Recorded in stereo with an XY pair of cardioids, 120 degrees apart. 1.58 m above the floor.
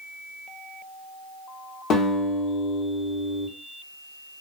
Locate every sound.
1.9 s a guitar: 70° left, 1.0 m